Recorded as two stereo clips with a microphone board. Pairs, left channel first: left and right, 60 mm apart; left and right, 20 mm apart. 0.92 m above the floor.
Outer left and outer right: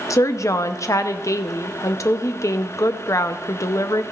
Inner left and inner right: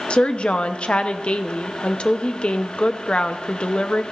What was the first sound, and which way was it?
A woman speaking, 65° left (ahead or behind).